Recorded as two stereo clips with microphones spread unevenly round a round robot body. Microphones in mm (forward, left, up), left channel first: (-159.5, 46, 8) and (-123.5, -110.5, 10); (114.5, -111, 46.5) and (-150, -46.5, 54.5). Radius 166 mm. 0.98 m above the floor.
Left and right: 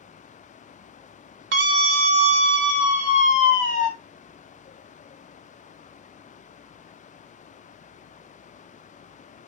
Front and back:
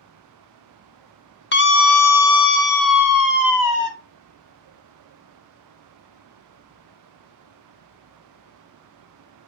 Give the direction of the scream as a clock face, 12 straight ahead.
2 o'clock.